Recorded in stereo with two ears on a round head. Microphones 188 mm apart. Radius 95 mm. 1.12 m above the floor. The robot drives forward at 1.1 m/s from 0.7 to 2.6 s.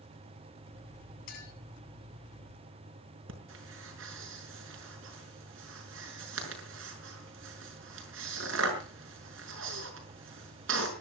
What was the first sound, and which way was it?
A clink, 50° left (ahead or behind).